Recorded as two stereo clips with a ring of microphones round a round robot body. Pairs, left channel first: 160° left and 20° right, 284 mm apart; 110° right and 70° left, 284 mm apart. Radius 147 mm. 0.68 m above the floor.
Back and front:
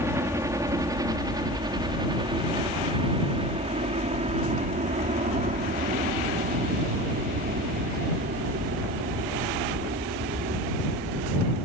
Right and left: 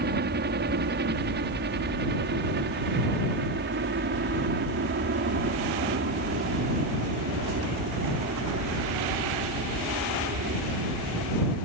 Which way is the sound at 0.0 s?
50° left.